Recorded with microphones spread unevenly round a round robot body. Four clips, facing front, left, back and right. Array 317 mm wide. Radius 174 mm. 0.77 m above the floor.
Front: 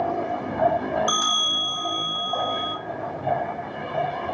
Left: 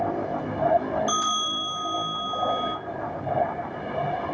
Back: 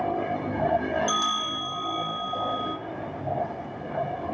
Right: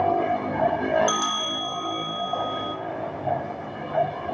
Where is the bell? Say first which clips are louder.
Even, front 1 dB; 70° right, 1.3 m.